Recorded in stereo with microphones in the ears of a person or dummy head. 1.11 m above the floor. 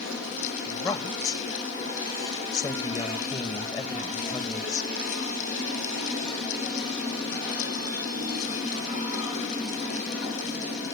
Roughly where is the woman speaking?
Left.